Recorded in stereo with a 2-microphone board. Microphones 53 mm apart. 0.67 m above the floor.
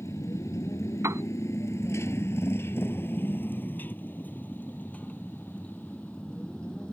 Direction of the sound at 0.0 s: 90° left.